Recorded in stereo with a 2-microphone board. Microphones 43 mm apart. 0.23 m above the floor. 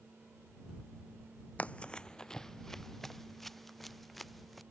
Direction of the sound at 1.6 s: 30° left (ahead or behind).